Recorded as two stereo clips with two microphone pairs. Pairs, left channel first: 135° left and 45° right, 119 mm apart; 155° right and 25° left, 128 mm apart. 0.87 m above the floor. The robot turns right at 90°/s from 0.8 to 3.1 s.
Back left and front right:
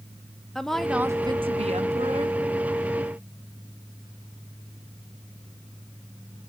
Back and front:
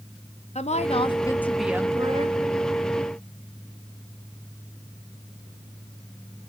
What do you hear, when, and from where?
0.6 s a woman speaking: 135° right, 0.9 m; by 2.4 s 5° left, 0.9 m